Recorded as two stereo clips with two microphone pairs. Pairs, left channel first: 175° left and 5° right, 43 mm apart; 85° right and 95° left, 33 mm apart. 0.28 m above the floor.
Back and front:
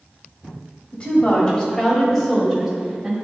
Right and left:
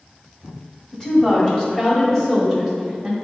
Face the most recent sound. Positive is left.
turn(degrees=10)